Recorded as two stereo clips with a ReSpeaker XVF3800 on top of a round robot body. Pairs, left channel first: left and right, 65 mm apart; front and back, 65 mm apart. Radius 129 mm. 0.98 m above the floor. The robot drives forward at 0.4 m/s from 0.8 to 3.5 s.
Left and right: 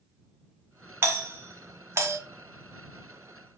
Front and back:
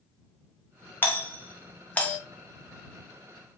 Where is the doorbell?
45° right, 1.8 m; by 2.2 s 65° right, 1.6 m.